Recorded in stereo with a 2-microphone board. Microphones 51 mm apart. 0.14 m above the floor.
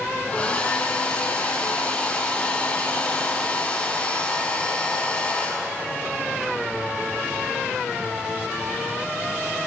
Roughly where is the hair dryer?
Left.